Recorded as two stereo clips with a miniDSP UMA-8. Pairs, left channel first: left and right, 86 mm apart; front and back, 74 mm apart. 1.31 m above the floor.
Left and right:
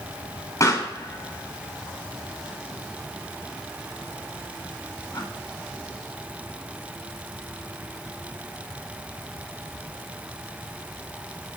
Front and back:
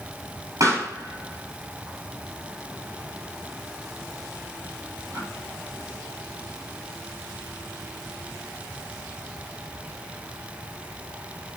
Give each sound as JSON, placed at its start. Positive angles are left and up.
{"t": 0.6, "sound": "a pop", "azimuth_deg": 140, "distance_m": 7.0}